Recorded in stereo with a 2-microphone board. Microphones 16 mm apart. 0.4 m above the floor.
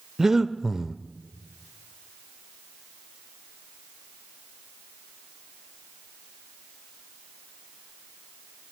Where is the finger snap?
No finger snap in this recording.